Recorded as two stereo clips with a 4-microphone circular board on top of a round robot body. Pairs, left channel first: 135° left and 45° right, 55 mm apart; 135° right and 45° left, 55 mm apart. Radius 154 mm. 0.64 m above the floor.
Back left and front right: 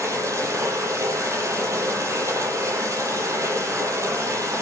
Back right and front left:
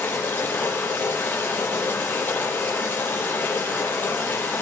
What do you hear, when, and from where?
0.0 s running water: 75° right, 7.5 m